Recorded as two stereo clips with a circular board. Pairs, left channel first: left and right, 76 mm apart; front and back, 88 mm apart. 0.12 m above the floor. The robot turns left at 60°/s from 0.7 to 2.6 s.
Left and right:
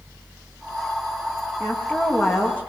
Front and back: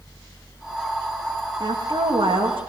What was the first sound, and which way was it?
A woman speaking, 140° right.